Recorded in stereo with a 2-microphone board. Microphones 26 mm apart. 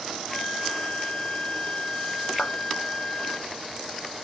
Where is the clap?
55° left (ahead or behind), 0.6 m.